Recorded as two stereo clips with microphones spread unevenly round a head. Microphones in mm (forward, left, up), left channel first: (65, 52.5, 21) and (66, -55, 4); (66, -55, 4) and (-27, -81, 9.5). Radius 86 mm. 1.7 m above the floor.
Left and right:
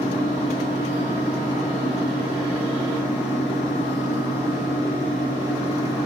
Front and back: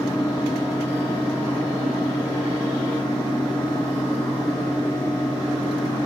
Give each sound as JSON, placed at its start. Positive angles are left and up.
{"t": 0.0, "sound": "a fan", "azimuth_deg": 85, "distance_m": 1.1}